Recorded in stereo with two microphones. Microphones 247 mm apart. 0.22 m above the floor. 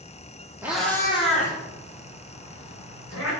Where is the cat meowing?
10° right (ahead or behind), 1.7 m; by 3.3 s 70° left (ahead or behind), 4 m.